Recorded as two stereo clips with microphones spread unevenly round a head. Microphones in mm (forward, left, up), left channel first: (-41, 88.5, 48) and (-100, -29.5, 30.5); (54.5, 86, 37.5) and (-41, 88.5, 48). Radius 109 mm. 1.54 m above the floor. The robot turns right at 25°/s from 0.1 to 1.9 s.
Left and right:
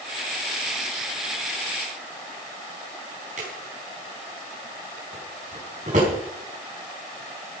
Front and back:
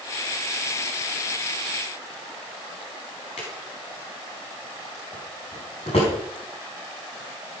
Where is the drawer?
60° right, 4.5 m.